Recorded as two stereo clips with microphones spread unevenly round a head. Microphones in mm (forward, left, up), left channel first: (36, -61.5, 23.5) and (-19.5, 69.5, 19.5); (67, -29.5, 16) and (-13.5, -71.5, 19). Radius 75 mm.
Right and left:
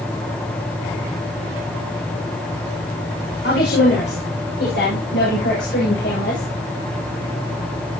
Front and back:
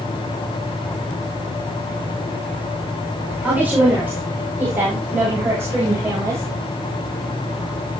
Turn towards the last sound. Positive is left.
turn(degrees=-95)